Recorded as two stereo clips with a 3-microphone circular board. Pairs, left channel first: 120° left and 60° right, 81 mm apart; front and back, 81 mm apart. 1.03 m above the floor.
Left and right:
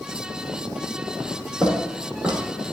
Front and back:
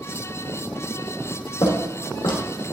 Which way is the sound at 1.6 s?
15° left.